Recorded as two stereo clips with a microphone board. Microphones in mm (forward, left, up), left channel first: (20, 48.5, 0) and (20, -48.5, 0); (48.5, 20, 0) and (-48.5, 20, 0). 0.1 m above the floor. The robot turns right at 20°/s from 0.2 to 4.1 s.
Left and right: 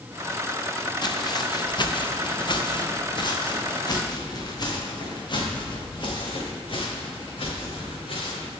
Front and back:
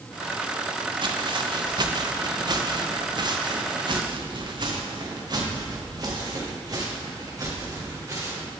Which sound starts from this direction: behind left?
Footsteps, at 1.0 s.